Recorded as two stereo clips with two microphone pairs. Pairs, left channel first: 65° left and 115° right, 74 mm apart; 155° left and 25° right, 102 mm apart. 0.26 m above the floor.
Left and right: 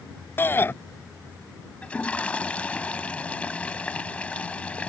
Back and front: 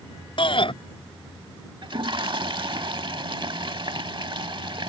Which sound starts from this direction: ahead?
A toilet flushing, at 1.8 s.